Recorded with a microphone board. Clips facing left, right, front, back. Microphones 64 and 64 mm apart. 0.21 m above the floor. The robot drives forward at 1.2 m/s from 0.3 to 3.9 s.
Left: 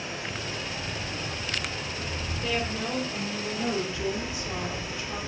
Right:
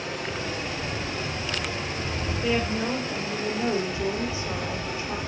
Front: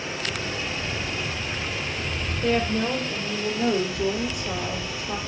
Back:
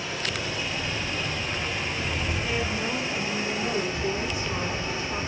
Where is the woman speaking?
20° right, 7 m; by 5.2 s 30° right, 5 m.